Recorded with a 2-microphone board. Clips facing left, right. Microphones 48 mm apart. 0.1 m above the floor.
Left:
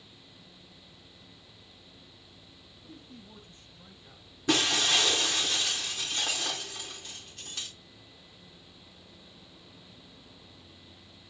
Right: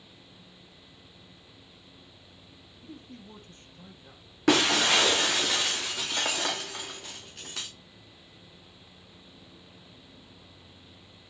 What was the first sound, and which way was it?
A man speaking, 45° right (ahead or behind).